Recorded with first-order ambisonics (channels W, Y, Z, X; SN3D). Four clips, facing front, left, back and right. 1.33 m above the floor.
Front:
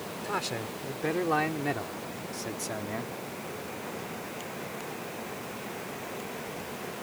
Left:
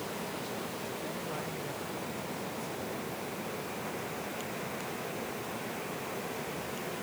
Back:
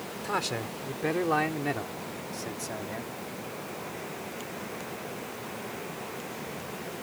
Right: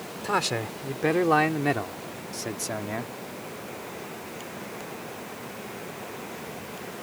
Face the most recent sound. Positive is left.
turn(degrees=-75)